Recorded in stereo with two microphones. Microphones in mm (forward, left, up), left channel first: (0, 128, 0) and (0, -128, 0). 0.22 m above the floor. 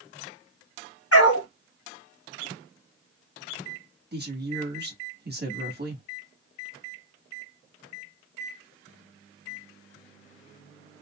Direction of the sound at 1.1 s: 65° left (ahead or behind).